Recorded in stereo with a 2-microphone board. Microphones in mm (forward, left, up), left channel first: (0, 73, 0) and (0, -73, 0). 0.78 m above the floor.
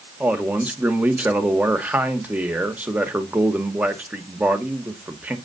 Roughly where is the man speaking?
Centre.